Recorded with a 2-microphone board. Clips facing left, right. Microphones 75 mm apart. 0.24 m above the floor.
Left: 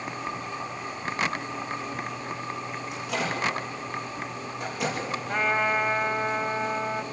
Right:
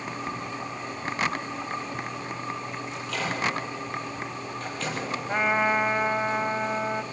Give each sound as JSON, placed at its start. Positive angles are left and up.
{"t": 2.9, "sound": "a microwave", "side_deg": 15, "distance_m": 5.5}
{"t": 5.3, "sound": "a trumpet", "side_deg": -10, "distance_m": 0.9}